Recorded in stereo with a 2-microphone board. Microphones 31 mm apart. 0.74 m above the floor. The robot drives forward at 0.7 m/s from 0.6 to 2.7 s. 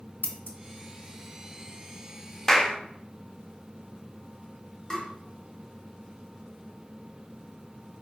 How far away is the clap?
About 0.5 m.